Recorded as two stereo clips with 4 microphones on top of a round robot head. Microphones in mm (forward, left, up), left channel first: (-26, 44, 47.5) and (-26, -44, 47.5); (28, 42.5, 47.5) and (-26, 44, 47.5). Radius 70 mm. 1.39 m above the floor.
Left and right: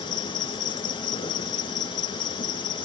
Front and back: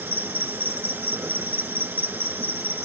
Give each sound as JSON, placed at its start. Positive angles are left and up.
{"t": 0.0, "sound": "an insect", "azimuth_deg": 130, "distance_m": 2.5}